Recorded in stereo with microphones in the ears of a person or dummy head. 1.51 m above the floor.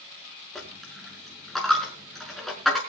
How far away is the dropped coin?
About 5 m.